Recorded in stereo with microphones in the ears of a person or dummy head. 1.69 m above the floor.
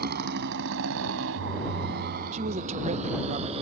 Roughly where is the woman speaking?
Right.